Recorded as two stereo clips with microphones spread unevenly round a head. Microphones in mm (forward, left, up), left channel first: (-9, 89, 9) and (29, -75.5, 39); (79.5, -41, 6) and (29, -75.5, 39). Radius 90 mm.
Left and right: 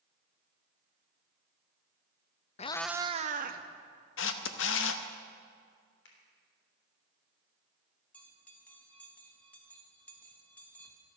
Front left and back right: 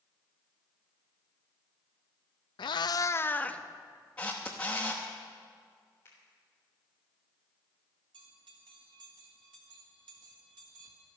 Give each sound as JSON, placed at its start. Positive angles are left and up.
{"t": 2.6, "sound": "a cat meowing", "azimuth_deg": 50, "distance_m": 0.5}
{"t": 4.2, "sound": "a camera shutter", "azimuth_deg": 115, "distance_m": 0.8}
{"t": 6.0, "sound": "a finger snap", "azimuth_deg": 95, "distance_m": 3.5}
{"t": 8.1, "sound": "a bell", "azimuth_deg": 180, "distance_m": 1.7}